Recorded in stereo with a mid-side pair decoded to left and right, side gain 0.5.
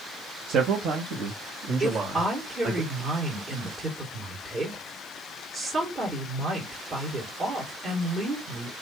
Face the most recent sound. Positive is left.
turn(degrees=-35)